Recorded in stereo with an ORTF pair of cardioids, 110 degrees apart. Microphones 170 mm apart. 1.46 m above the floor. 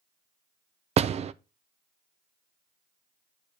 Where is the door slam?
40° right, 0.6 m.